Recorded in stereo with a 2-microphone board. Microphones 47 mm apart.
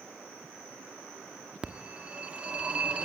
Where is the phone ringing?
25° right (ahead or behind), 1.2 m.